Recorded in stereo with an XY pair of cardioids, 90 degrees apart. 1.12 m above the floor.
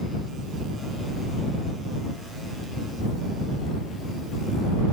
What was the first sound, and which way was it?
Only background noise.